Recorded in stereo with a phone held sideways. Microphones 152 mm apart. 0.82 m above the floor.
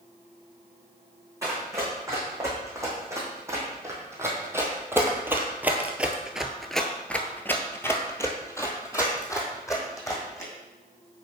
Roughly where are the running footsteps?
Centre.